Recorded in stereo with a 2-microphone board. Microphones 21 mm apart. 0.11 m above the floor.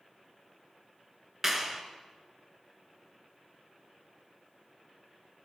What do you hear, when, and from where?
1.4 s a clap: 20° right (ahead or behind), 1.2 m